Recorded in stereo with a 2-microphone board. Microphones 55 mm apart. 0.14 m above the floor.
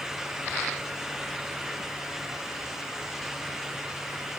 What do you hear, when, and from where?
Only background noise.